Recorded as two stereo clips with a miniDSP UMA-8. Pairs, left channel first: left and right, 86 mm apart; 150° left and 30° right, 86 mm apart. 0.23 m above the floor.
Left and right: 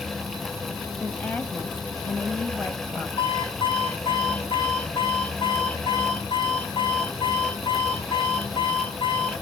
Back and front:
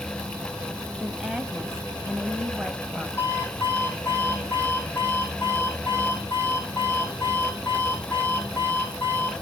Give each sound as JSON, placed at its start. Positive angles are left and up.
{"t": 1.0, "sound": "a woman speaking", "azimuth_deg": 40, "distance_m": 1.2}
{"t": 3.2, "sound": "an alarm clock", "azimuth_deg": 85, "distance_m": 5.0}